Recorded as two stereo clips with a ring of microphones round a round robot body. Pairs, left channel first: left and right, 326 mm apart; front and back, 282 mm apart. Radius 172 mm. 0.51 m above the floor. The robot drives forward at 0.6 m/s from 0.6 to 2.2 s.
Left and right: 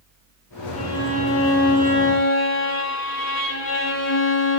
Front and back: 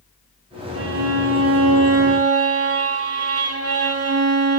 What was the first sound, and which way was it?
A violin, 140° left.